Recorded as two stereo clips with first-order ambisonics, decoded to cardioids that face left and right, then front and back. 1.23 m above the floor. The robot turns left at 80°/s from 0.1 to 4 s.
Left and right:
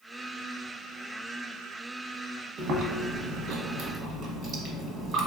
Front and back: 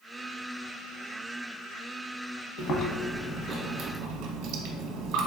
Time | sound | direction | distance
2.6 | chewing | 35° right | 0.8 m